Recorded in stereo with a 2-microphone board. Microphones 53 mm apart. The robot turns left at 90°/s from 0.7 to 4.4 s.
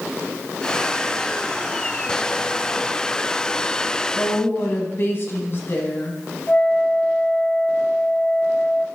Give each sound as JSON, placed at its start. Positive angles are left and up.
{"t": 4.2, "sound": "a woman speaking", "side_deg": 30, "distance_m": 2.0}
{"t": 6.5, "sound": "a flute", "side_deg": 30, "distance_m": 0.8}